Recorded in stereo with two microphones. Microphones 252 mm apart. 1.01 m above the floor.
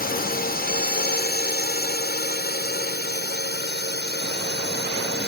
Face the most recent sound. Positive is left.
turn(degrees=40)  # may be behind; listen again after turning